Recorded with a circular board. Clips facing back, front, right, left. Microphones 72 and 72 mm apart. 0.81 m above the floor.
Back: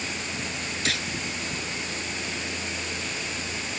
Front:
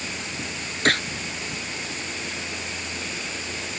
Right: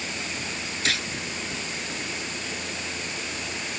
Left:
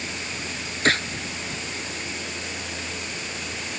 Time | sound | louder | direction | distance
0.8 | a gunshot | front 9 dB, left 7 dB | 40° left | ?